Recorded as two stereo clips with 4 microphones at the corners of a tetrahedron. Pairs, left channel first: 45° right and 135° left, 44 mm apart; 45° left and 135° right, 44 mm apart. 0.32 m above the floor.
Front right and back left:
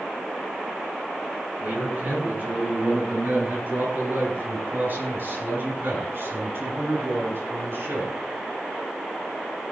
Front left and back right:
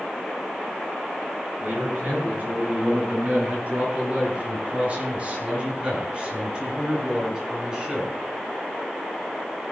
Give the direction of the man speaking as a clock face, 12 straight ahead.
6 o'clock.